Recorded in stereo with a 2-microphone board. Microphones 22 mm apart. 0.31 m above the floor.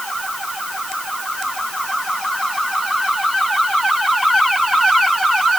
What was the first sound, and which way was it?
Only background noise.